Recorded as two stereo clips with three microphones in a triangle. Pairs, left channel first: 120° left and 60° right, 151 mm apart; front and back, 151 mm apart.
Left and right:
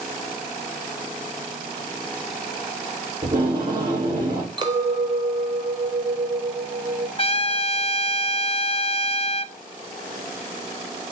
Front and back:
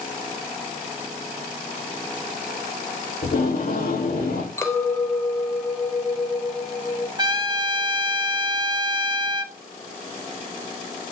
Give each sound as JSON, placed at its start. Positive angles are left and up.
{"t": 3.2, "sound": "tape being pulled", "azimuth_deg": 0, "distance_m": 5.5}
{"t": 4.6, "sound": "a clink", "azimuth_deg": -55, "distance_m": 1.2}
{"t": 7.2, "sound": "a trumpet", "azimuth_deg": 135, "distance_m": 0.5}